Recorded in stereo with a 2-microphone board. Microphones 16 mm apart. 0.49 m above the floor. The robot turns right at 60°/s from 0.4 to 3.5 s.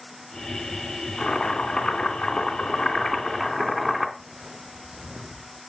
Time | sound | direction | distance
1.2 | boiling | 30° left | 2.5 m
4.2 | footsteps | 55° right (ahead or behind) | 1.4 m